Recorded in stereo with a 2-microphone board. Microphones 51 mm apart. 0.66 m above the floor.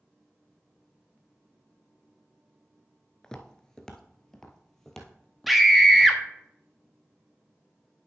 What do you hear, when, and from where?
3.2 s footsteps: 15° left (ahead or behind), 0.6 m; by 6.1 s 5° left (ahead or behind), 1.7 m
5.5 s a scream: centre (ahead or behind), 0.7 m